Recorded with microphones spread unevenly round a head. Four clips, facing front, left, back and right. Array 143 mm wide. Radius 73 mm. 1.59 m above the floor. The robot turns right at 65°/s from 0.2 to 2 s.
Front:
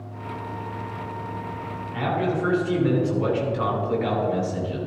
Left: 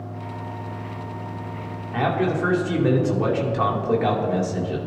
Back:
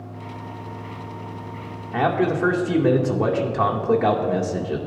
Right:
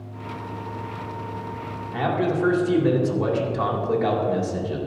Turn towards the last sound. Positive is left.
turn(degrees=175)